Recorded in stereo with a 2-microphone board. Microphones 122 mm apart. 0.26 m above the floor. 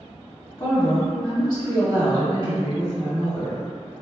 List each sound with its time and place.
0.6 s a woman speaking: 35° left (ahead or behind), 1.5 m